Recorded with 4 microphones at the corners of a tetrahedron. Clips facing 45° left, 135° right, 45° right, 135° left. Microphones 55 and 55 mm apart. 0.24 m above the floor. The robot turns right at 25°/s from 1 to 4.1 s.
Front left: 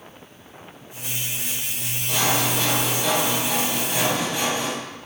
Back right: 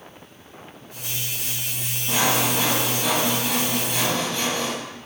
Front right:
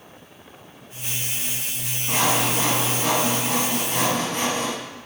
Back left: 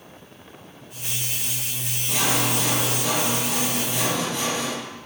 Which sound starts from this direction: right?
Sawing, at 2.1 s.